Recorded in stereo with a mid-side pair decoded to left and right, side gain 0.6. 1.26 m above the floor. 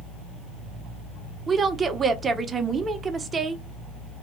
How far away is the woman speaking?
About 0.7 m.